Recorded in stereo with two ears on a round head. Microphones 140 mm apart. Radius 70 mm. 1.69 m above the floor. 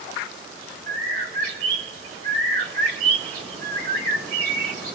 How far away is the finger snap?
No finger snap in this recording.